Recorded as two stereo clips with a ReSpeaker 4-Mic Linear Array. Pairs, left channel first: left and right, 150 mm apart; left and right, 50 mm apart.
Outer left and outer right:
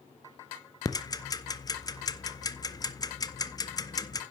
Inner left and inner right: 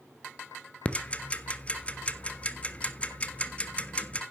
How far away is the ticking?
About 0.8 m.